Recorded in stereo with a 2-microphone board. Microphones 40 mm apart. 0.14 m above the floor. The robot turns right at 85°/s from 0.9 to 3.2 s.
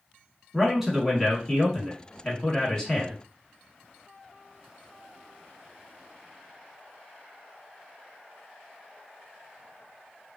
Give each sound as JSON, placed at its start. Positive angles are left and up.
{"t": 0.5, "sound": "a man speaking", "side_deg": -10, "distance_m": 1.0}